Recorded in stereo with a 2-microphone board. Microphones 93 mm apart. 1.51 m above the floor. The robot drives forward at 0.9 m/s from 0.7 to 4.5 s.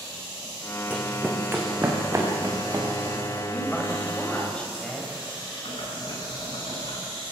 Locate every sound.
0.9 s running footsteps: 15° right (ahead or behind), 4 m; by 3.4 s 35° right (ahead or behind), 7.5 m
3.5 s a woman speaking: 15° left (ahead or behind), 6.5 m; by 5.1 s 10° left (ahead or behind), 7.5 m
5.7 s boiling: 80° left, 7.5 m